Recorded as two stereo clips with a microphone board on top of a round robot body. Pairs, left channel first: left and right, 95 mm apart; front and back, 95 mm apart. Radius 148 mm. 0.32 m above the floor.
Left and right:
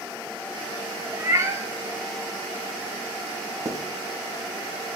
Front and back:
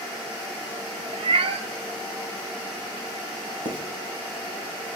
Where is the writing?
150° right, 3 m.